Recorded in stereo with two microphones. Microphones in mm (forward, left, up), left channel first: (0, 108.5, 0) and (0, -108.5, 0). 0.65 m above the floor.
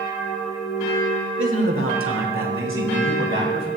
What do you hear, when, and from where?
1.4 s a man speaking: 65° right (ahead or behind), 1.7 m; by 3.7 s 60° right (ahead or behind), 3 m